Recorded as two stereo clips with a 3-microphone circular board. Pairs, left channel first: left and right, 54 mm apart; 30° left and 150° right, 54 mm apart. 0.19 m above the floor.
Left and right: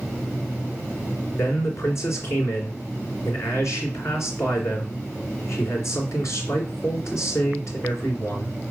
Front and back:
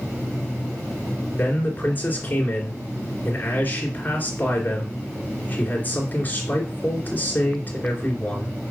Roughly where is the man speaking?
Left.